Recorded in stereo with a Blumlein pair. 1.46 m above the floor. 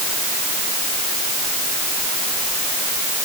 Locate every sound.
Only background noise.